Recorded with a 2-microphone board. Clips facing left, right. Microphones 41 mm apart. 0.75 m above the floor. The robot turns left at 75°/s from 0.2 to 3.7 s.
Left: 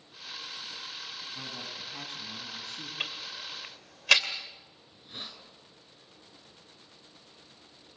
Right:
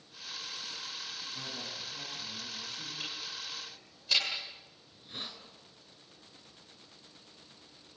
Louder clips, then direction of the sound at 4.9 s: Even; centre (ahead or behind).